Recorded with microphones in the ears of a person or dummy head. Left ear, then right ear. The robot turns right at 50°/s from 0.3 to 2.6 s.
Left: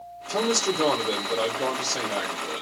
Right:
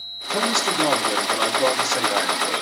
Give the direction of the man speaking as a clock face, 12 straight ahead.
8 o'clock.